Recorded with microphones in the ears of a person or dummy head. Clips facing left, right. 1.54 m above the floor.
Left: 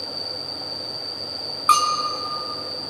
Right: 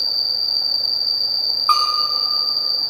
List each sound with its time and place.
0.0 s an insect: 50° right (ahead or behind), 0.8 m
1.7 s a bell: 25° left (ahead or behind), 3 m